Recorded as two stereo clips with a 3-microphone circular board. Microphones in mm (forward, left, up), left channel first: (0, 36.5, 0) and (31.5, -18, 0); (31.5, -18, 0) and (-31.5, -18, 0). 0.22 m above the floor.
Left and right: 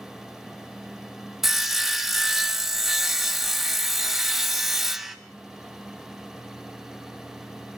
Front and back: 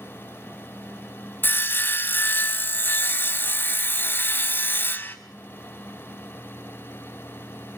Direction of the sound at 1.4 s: 20° left.